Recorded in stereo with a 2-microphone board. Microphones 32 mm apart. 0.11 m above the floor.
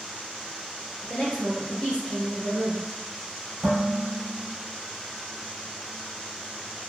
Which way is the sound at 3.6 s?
Centre (ahead or behind).